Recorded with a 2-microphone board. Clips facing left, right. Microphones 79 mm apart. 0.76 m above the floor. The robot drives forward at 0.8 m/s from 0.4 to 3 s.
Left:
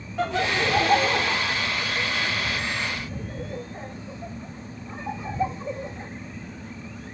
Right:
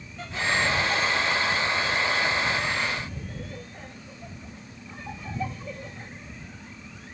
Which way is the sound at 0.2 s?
70° left (ahead or behind).